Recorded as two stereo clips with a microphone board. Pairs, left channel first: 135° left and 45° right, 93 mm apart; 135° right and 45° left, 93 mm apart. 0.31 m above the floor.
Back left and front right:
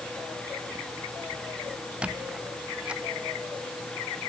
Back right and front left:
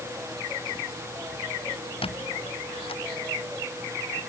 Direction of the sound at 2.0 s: 125° right.